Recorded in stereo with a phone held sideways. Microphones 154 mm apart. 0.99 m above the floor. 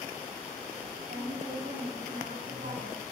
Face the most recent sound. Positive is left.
turn(degrees=-85)